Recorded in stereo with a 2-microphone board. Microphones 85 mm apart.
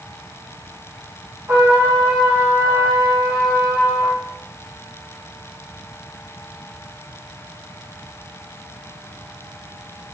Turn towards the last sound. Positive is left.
turn(degrees=-30)  # may be behind; listen again after turning